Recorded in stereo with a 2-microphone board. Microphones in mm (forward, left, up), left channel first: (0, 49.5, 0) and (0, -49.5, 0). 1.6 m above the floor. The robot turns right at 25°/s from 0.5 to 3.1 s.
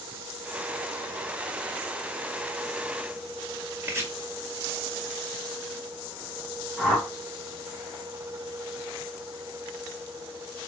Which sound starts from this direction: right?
Chopping, at 3.8 s.